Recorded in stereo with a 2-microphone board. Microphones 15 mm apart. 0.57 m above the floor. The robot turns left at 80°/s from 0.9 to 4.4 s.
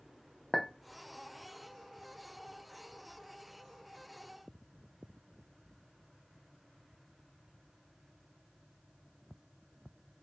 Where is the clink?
35° left (ahead or behind), 0.7 m.